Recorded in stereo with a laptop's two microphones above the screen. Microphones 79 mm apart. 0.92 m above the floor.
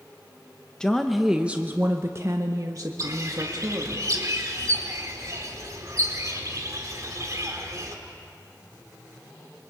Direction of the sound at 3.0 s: 50° right (ahead or behind).